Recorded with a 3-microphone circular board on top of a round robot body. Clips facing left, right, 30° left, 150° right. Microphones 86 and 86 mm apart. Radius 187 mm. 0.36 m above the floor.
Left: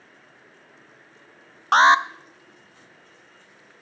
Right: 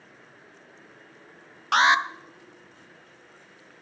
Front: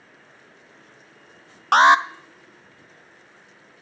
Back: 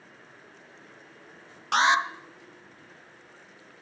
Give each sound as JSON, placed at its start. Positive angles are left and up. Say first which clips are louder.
{"t": 1.7, "sound": "an alarm", "louder": "left 5 dB, front 8 dB", "azimuth_deg": 45, "distance_m": 0.8}